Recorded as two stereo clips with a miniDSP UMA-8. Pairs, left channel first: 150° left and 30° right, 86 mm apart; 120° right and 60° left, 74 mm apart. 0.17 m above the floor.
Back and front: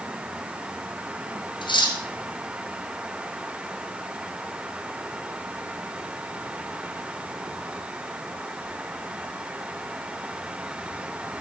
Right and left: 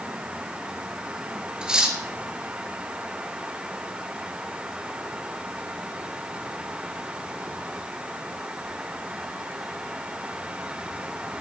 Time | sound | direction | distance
1.6 | cutlery clinking | 140° left | 1.9 m